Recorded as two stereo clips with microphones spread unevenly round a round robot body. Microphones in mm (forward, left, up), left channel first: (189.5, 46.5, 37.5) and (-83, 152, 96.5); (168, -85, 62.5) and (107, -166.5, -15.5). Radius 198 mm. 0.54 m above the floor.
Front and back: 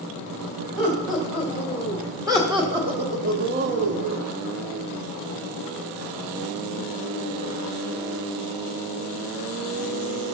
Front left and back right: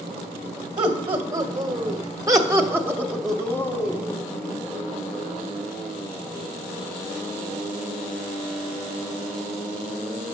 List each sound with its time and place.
0.8 s laughter: 110° right, 2 m; by 4.2 s 130° left, 0.7 m